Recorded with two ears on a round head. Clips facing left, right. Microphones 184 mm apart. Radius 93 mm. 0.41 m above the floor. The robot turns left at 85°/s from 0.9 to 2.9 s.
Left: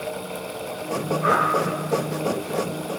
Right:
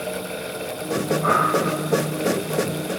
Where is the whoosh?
40° left (ahead or behind), 3 m; by 1.4 s 20° left (ahead or behind), 3 m.